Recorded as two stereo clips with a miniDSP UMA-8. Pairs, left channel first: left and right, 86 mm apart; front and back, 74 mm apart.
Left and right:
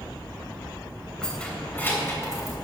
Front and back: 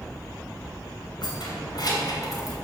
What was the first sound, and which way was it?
Keys jangling, 10° left.